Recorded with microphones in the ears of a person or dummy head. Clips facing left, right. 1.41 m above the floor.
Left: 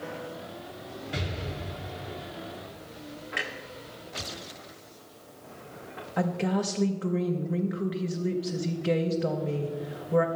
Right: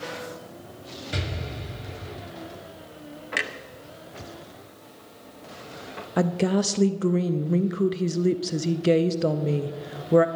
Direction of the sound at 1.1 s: 55° right (ahead or behind).